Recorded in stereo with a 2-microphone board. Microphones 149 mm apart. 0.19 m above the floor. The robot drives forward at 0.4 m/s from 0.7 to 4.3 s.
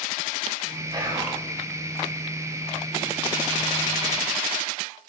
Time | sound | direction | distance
0.9 | whispering | 30° right (ahead or behind) | 1.8 m